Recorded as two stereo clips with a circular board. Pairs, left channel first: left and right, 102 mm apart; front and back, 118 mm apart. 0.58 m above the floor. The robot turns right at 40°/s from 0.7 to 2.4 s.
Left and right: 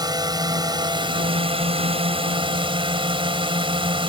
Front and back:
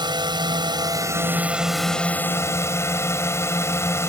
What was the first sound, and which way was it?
A drone, 135° right.